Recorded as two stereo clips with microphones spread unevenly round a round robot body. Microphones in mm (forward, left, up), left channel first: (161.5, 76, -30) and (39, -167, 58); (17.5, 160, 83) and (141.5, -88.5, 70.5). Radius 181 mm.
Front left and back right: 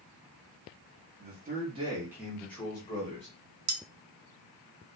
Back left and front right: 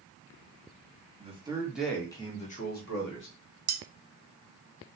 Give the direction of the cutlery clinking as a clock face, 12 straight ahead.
3 o'clock.